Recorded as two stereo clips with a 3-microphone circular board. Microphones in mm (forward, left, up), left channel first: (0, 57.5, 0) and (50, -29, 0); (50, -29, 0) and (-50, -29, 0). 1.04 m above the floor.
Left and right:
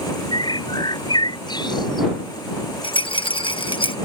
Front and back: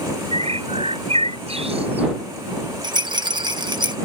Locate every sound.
0.3 s a bird: 165° left
2.8 s a rattle: 145° left